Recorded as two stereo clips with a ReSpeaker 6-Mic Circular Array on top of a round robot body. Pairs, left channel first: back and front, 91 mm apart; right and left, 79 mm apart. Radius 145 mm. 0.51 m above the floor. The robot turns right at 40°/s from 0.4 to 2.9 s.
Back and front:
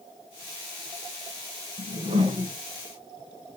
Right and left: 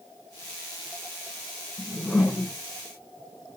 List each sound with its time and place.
1.8 s a whoosh: 10° right, 2.5 m; by 2.5 s 20° left, 2.5 m